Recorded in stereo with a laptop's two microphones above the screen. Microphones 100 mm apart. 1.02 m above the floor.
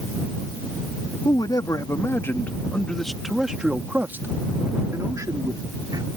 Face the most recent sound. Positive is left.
turn(degrees=-45)  # may be behind; listen again after turning